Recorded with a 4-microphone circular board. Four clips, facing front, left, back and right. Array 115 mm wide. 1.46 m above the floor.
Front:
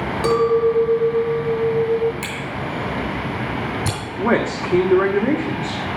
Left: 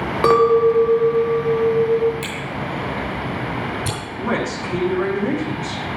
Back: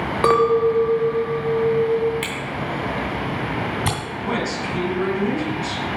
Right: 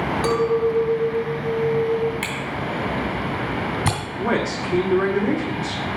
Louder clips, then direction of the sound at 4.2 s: Even, front 7 dB; 5° right.